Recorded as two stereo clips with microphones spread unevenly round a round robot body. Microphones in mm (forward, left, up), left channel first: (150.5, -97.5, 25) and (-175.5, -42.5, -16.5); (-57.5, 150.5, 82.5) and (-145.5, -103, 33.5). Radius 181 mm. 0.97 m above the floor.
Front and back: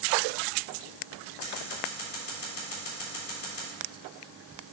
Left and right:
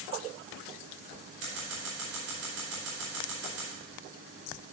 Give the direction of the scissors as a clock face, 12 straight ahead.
2 o'clock.